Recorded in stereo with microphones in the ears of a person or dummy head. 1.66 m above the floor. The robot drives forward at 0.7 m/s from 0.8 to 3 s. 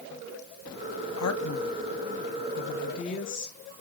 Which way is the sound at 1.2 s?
85° left.